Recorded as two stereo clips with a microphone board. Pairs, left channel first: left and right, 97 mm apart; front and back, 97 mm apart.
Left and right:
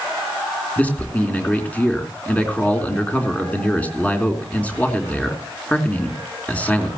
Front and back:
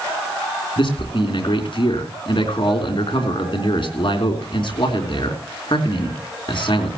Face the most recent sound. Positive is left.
turn(degrees=20)